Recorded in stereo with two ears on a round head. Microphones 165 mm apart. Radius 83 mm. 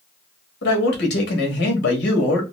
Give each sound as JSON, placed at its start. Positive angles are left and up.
{"t": 0.6, "sound": "a man speaking", "side_deg": 65, "distance_m": 1.8}